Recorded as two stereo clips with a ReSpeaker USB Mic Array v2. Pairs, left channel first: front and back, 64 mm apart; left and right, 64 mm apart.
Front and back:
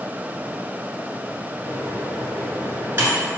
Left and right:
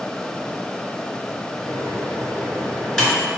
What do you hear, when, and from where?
1.6 s a microwave: straight behind, 1.2 m